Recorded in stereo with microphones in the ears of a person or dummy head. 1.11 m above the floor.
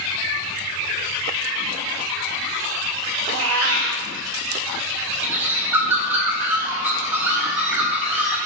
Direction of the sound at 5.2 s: 5° right (ahead or behind).